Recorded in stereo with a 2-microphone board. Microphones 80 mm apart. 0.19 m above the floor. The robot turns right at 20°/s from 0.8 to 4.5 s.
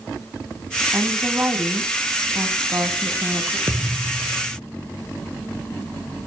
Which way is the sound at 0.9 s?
135° right.